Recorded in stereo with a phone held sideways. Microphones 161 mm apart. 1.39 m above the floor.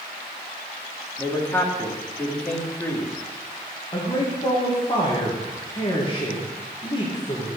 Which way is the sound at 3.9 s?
30° left (ahead or behind).